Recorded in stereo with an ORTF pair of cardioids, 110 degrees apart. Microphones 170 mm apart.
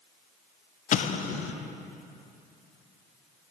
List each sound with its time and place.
0.9 s an explosion: 50° left, 0.6 m